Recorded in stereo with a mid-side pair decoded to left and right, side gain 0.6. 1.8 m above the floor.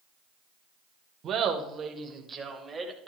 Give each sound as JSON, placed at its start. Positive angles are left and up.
{"t": 1.2, "sound": "laughter", "azimuth_deg": -45, "distance_m": 1.9}